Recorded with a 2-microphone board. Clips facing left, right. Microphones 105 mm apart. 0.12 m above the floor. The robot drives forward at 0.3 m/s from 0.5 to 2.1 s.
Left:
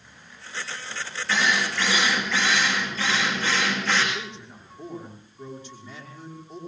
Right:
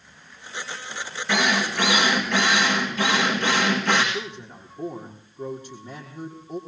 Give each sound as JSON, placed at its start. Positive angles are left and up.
{"t": 1.3, "sound": "a drill", "side_deg": -60, "distance_m": 6.0}
{"t": 4.1, "sound": "a man speaking", "side_deg": -45, "distance_m": 5.5}